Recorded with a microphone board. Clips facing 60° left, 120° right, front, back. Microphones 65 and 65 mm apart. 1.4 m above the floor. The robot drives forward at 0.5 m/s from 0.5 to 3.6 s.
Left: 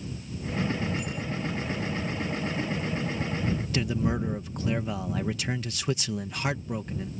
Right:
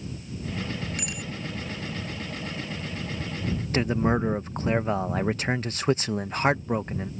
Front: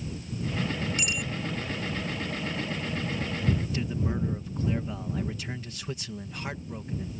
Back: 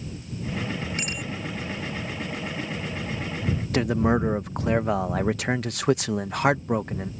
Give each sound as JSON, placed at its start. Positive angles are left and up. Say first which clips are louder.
{"t": 1.0, "sound": "a bicycle bell", "louder": "left 2 dB, even", "azimuth_deg": -130}
{"t": 3.7, "sound": "a man speaking", "louder": "right 7 dB, back 9 dB", "azimuth_deg": -170}